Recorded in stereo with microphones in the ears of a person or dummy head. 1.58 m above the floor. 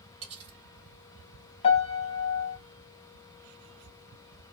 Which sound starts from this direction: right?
Cutlery clinking, at 0.2 s.